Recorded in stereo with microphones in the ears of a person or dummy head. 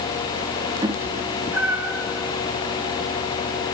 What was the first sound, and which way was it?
A cat meowing, 20° right (ahead or behind).